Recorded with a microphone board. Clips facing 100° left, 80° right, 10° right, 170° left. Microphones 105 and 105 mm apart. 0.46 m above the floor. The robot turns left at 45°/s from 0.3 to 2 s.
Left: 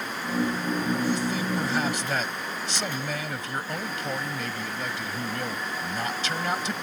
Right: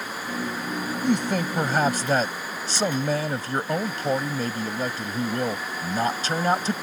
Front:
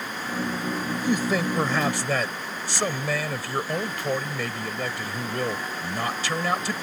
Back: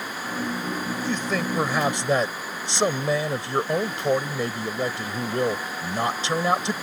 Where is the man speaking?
85° right; by 6.7 s 125° right.